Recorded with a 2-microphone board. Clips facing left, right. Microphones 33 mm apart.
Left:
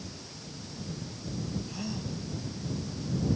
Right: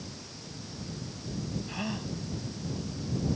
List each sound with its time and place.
1.7 s a gasp: 40° right (ahead or behind)